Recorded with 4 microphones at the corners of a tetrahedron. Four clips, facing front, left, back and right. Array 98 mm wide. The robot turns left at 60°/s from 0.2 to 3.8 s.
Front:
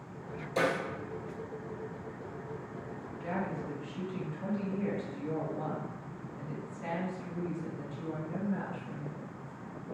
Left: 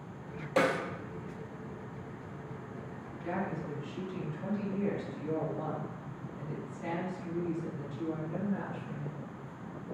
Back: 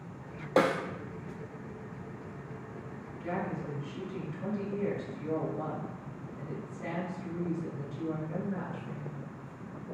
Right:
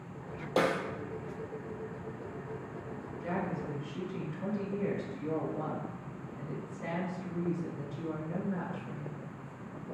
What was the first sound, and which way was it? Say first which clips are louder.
A snare drum: left 1 dB, back 4 dB; 170° right.